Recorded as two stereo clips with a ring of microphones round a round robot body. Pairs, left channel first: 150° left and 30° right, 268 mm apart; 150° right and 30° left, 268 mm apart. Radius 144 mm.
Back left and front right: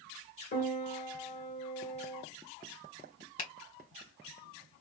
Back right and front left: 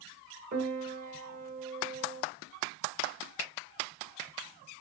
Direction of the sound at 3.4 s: 110° left.